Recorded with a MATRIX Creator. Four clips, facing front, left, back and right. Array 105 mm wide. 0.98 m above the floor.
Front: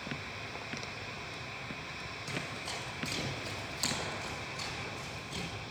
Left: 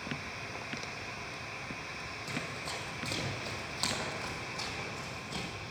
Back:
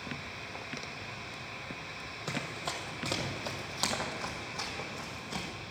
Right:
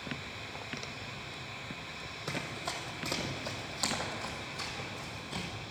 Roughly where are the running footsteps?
Behind right.